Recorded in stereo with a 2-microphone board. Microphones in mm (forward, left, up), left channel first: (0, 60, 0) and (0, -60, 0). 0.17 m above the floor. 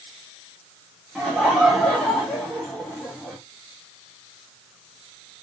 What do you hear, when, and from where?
1.1 s laughter: centre (ahead or behind), 1.2 m